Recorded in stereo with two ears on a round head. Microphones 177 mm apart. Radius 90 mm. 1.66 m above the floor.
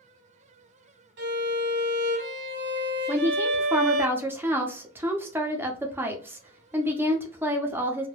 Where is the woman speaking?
10° right (ahead or behind), 0.6 m.